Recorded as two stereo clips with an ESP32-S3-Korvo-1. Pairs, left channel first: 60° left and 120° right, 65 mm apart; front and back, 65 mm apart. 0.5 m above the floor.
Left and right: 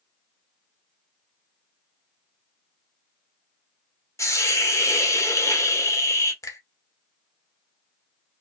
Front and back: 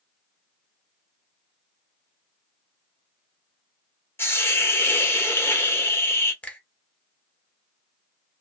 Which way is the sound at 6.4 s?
60° left.